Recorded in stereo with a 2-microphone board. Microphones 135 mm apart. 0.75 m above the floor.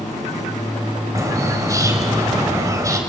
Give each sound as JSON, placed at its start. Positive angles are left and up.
{"t": 1.1, "sound": "a bird", "side_deg": -25, "distance_m": 2.5}